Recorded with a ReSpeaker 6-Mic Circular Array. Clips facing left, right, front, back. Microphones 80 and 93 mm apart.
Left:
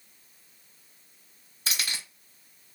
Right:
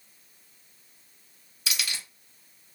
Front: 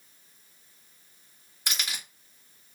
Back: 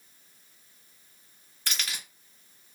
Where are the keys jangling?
65° left, 1.3 m.